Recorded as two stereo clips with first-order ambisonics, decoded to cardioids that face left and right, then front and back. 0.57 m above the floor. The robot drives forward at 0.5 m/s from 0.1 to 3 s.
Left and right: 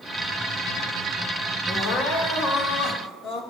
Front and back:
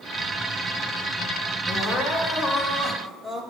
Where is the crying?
60° left, 1.3 m; by 3.4 s 100° left, 1.2 m.